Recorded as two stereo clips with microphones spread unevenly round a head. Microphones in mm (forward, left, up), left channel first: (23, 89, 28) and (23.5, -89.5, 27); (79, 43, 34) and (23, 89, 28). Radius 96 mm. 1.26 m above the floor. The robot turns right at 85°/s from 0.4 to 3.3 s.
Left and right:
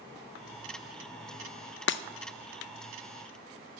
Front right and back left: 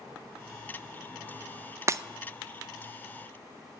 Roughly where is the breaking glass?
Left.